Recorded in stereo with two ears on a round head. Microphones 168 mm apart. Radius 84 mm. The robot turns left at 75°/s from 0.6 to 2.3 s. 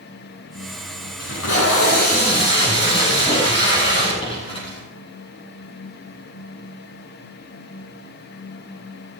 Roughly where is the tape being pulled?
Left.